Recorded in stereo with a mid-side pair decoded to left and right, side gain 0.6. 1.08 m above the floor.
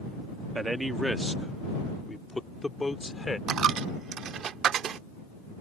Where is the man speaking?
15° right; by 3.4 s 15° left.